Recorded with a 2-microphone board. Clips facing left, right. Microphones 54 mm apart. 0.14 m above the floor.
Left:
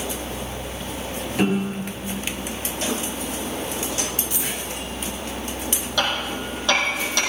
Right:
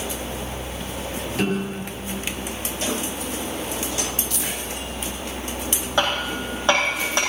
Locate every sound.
1.4 s a piano: 10° left (ahead or behind), 2.5 m
4.3 s a dropped coin: 15° left (ahead or behind), 3 m
6.0 s hammering: 30° right (ahead or behind), 3.5 m